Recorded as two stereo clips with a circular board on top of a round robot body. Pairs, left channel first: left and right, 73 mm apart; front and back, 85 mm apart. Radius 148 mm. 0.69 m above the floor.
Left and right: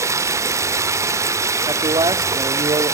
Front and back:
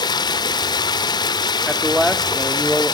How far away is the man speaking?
About 1.6 m.